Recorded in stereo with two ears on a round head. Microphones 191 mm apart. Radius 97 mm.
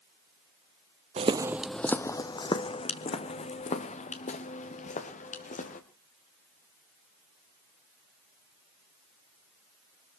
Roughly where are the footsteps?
Right.